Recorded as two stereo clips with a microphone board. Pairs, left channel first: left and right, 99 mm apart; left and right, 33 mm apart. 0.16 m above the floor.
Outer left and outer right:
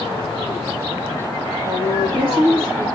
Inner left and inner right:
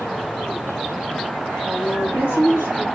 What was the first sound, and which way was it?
A woman speaking, 70° right (ahead or behind).